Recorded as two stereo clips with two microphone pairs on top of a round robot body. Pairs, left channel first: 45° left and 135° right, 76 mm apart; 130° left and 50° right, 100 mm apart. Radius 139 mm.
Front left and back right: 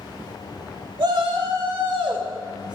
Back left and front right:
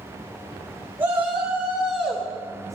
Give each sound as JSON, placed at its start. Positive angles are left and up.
{"t": 1.0, "sound": "a shout", "azimuth_deg": -125, "distance_m": 1.9}